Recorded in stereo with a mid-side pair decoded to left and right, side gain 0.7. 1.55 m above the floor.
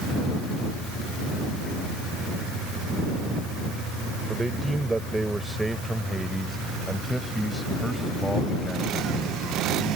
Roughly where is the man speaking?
Ahead.